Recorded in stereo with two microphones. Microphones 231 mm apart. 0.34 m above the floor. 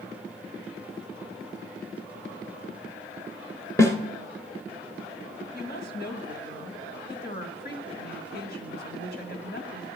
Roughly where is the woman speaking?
Left.